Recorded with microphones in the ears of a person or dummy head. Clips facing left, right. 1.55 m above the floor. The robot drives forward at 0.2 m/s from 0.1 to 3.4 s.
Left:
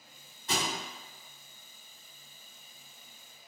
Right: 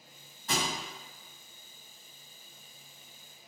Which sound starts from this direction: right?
A thud, at 0.5 s.